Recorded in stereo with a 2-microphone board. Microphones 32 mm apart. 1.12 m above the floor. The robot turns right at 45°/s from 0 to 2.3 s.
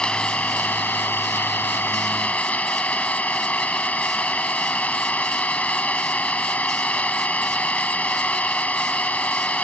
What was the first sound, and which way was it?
An engine running, 25° left.